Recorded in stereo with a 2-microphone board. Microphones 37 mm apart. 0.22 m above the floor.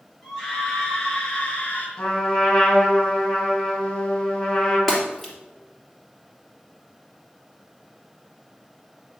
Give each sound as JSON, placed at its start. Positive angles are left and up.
{"t": 0.2, "sound": "a scream", "side_deg": 10, "distance_m": 3.5}
{"t": 2.0, "sound": "a trumpet", "side_deg": 20, "distance_m": 2.5}
{"t": 4.9, "sound": "breaking glass", "side_deg": 5, "distance_m": 3.0}